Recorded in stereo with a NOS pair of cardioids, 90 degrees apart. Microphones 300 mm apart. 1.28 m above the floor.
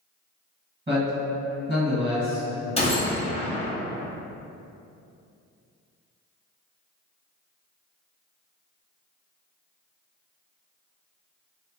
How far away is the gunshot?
About 0.8 m.